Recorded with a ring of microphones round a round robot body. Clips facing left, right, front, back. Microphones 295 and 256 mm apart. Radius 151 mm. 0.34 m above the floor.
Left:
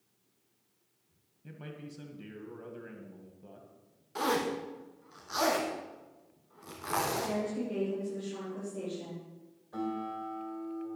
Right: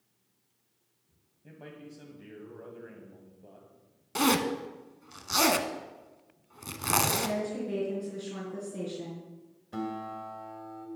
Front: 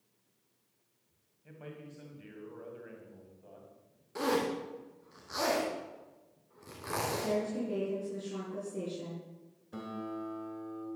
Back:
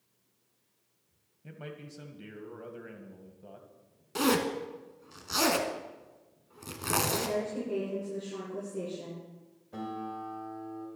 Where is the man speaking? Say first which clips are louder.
Left 1 dB, back 3 dB; 155° left, 1.8 m.